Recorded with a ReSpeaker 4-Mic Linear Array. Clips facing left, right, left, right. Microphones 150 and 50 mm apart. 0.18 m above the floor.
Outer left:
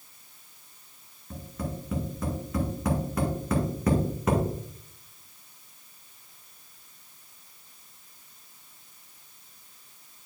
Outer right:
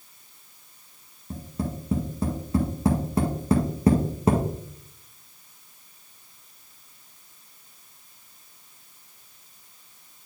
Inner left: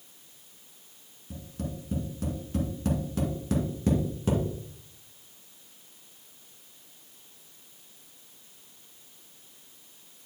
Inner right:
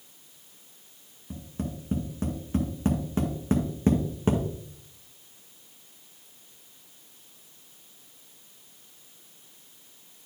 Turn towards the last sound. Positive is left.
turn(degrees=-35)  # may be behind; listen again after turning